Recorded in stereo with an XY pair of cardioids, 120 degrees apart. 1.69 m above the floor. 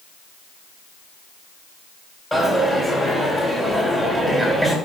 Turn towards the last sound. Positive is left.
turn(degrees=10)